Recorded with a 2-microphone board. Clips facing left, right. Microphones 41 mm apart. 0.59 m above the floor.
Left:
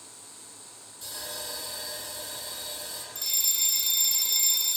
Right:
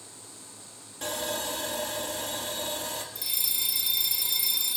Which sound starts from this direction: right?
Sawing, at 1.0 s.